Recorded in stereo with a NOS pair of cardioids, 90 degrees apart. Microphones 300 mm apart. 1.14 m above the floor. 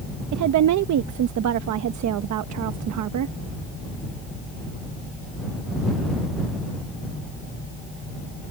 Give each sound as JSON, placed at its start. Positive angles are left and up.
{"t": 0.3, "sound": "a woman speaking", "azimuth_deg": -70}